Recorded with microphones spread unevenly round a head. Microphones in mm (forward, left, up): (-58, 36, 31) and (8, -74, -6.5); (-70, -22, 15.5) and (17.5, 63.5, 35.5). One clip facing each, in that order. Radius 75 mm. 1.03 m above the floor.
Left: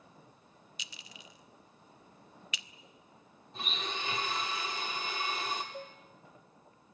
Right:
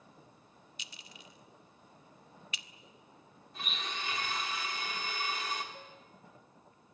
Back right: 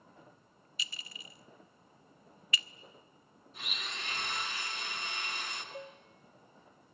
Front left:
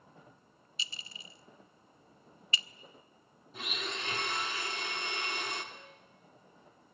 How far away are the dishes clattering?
About 2.5 m.